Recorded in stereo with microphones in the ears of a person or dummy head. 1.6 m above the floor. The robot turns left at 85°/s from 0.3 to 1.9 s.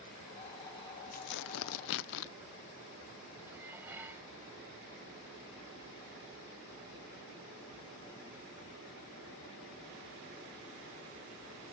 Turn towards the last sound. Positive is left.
turn(degrees=-15)  # may be behind; listen again after turning